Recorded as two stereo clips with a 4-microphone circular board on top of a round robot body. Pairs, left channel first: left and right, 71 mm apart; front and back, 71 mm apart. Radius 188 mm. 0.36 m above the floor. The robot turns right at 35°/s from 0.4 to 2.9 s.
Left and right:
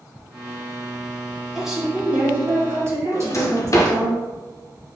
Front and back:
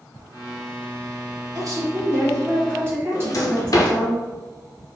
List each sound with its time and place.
1.6 s a woman speaking: straight behind, 1.9 m; by 4.1 s 130° right, 1.9 m
3.1 s a drawer: 40° left, 0.6 m